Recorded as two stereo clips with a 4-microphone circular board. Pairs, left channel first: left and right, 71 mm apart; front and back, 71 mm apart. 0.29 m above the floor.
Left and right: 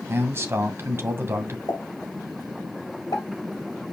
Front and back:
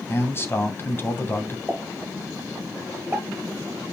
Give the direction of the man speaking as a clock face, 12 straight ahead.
2 o'clock.